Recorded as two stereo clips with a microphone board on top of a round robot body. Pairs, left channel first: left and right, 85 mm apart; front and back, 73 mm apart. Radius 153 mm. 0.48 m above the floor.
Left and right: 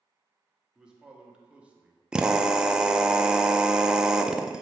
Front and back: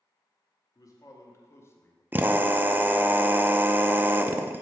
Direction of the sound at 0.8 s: 10° right.